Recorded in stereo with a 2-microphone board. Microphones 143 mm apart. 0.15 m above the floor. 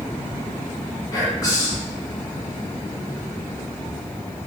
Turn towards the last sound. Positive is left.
turn(degrees=25)  # may be behind; listen again after turning